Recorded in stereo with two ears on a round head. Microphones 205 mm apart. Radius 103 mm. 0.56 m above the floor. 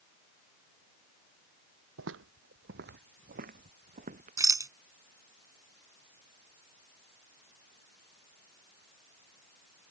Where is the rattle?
15° right (ahead or behind).